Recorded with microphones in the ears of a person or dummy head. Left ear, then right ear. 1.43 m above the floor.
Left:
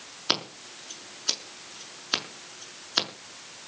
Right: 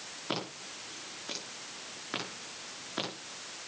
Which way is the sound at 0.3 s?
80° left.